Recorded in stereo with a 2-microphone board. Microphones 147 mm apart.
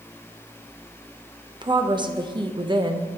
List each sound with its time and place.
1.6 s a woman speaking: 30° right (ahead or behind), 0.8 m